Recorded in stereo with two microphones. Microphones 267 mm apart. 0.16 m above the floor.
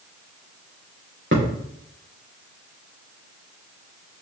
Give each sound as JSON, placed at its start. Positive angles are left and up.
{"t": 1.3, "sound": "a thud", "side_deg": -45, "distance_m": 4.0}